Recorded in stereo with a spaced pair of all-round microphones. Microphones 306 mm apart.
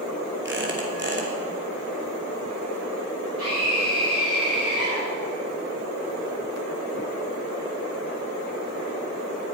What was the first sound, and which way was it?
A squeak, 40° right (ahead or behind).